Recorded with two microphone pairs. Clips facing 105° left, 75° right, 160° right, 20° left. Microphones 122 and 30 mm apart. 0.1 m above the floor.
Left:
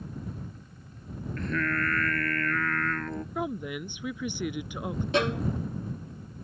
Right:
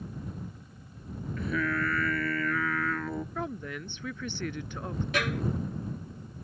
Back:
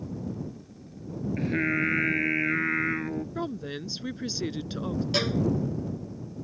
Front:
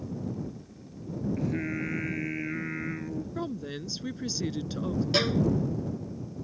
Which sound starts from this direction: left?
A violin, at 5.1 s.